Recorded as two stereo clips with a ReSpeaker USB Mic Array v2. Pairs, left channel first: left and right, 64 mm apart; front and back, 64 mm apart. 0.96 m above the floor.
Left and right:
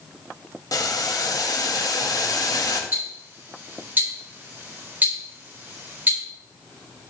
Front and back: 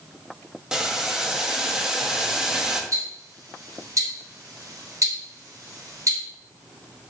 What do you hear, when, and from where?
0.7 s boiling: 100° left, 1.0 m
2.9 s ticking: 150° right, 3 m